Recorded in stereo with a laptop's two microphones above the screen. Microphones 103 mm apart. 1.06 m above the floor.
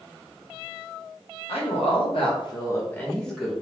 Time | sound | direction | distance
1.5 | a woman speaking | 75° left (ahead or behind) | 0.9 m